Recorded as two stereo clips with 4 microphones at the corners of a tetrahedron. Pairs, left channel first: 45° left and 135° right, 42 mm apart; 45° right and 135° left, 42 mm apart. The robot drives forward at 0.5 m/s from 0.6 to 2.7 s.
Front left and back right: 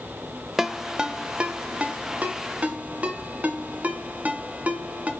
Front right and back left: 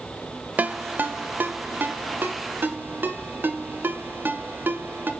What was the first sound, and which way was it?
A ringtone, 140° left.